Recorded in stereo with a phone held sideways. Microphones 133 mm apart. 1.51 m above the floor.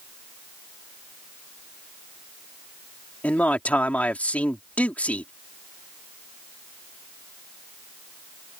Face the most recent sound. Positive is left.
turn(degrees=10)  # may be behind; listen again after turning